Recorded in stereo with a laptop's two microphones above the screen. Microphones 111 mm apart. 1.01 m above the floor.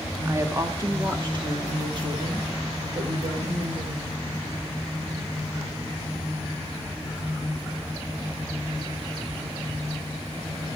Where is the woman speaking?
20° right (ahead or behind), 1.4 m; by 4.1 s 65° right (ahead or behind), 3.5 m.